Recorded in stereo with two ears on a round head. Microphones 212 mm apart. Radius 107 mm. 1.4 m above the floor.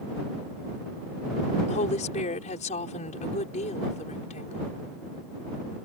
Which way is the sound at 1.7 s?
30° left (ahead or behind).